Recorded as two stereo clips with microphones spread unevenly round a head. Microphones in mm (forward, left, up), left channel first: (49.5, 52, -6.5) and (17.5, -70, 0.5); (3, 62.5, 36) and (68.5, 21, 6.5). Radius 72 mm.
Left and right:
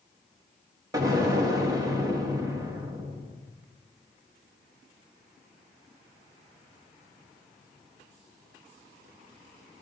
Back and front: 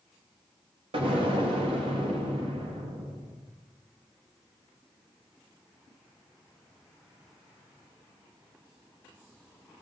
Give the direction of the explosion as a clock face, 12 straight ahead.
1 o'clock.